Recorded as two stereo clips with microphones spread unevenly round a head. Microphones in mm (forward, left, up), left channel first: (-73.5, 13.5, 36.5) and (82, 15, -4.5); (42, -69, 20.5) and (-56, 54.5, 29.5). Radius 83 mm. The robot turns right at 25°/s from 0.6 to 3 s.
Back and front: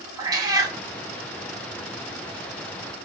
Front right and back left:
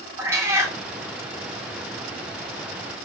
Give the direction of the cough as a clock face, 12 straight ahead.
I don't hear a cough.